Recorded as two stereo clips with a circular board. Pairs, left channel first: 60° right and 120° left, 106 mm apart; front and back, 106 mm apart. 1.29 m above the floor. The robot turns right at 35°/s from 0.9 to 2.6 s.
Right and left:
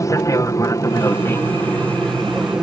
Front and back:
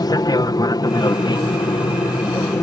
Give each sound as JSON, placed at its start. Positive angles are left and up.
{"t": 0.0, "sound": "an aircraft", "azimuth_deg": -20}